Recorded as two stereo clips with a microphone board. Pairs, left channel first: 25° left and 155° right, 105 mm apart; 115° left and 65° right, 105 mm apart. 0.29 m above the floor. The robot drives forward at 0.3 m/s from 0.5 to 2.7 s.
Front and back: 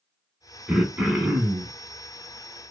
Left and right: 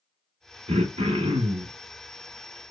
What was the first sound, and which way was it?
Throat clearing, 75° right.